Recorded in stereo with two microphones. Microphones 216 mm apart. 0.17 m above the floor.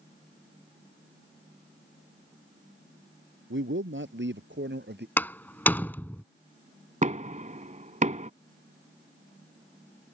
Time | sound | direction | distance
3.5 | a man speaking | 65° right (ahead or behind) | ?
5.2 | a door slam | 10° left (ahead or behind) | ?
7.0 | knocking | 35° right (ahead or behind) | ?